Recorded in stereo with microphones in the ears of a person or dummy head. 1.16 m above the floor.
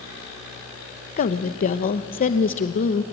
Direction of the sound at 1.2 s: 45° left (ahead or behind).